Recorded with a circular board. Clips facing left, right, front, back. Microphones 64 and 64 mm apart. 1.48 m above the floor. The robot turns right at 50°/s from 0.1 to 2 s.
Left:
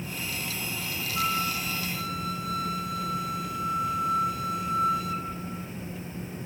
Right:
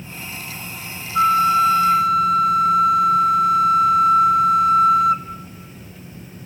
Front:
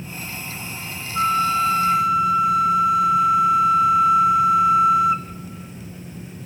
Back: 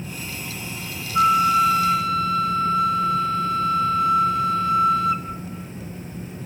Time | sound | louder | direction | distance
1.1 | a flute | right 15 dB, back 3 dB | 115° right | 0.6 m